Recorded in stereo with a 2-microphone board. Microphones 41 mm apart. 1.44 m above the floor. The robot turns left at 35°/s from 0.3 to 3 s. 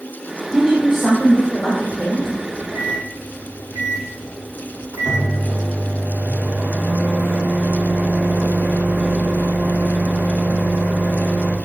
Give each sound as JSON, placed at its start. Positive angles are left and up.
{"t": 0.5, "sound": "a woman speaking", "azimuth_deg": -150, "distance_m": 1.6}
{"t": 2.4, "sound": "a microwave", "side_deg": -60, "distance_m": 1.3}